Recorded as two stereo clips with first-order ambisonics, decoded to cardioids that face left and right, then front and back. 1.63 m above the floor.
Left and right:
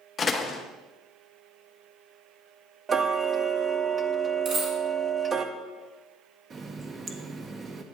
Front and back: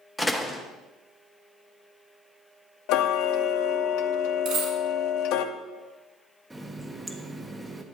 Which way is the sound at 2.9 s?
20° right.